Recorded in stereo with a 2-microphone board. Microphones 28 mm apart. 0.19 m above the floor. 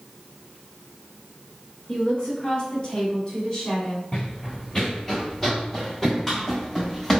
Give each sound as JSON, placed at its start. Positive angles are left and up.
{"t": 1.9, "sound": "a woman speaking", "side_deg": 35, "distance_m": 1.8}
{"t": 4.1, "sound": "running footsteps", "side_deg": 20, "distance_m": 0.6}